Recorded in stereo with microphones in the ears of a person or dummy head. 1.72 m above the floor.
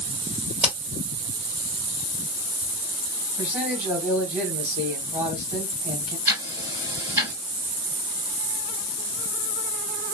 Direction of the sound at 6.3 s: 20° right (ahead or behind).